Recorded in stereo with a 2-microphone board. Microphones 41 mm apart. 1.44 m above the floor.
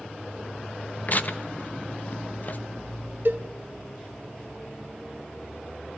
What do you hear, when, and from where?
1.1 s tearing paper: 40° left (ahead or behind), 1.1 m
3.2 s a cowbell: 60° right (ahead or behind), 1.6 m